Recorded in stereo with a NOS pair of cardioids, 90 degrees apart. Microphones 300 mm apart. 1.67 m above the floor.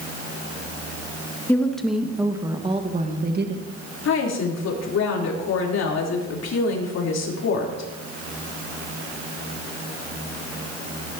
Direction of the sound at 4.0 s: 60° left.